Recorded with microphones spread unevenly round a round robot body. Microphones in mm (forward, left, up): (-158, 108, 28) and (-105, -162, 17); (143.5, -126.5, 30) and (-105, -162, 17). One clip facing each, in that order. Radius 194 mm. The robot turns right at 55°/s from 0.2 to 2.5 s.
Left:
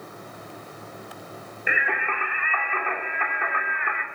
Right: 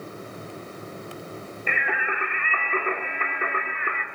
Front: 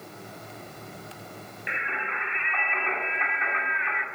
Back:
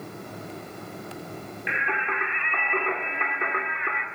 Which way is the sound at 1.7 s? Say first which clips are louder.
Left 1 dB, back 5 dB; straight behind.